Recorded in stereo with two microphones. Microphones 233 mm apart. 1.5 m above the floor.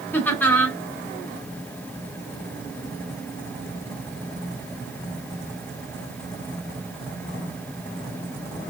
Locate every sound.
0.1 s laughter: 10° left (ahead or behind), 2 m